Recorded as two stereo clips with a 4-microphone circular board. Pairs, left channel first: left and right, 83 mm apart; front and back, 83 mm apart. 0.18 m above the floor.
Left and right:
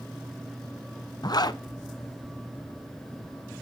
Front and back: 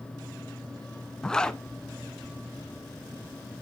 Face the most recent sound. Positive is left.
turn(degrees=80)